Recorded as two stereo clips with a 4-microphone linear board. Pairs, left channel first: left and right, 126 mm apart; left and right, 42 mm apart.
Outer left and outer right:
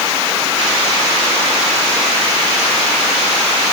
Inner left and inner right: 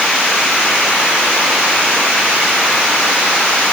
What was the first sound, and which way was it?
Only background noise.